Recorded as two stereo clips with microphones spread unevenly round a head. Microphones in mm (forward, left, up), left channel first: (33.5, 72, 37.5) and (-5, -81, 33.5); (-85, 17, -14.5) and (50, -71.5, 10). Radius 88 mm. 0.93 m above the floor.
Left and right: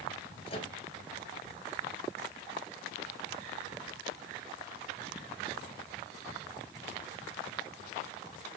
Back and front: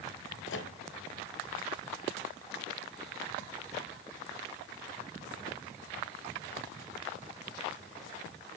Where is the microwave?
130° left, 4 m.